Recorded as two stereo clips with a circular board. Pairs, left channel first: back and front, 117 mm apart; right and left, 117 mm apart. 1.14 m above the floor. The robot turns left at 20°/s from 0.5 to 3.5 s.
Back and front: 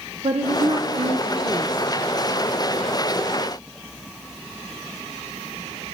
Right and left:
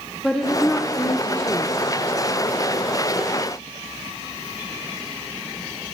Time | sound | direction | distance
0.2 | a woman speaking | 5° right | 0.9 m